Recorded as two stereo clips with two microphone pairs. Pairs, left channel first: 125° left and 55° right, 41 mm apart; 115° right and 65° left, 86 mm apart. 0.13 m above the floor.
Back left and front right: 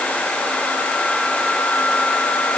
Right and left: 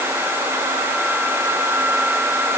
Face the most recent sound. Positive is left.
No sound to turn to.